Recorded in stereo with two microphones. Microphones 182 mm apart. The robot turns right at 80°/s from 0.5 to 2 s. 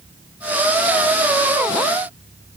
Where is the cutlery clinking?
No cutlery clinking in this recording.